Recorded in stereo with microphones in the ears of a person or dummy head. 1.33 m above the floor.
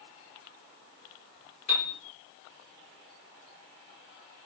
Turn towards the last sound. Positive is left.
turn(degrees=35)  # may be behind; listen again after turning